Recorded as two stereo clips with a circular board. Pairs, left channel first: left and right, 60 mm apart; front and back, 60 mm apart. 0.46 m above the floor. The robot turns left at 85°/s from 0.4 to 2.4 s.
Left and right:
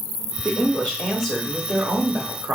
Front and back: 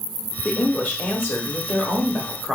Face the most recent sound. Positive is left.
turn(degrees=-90)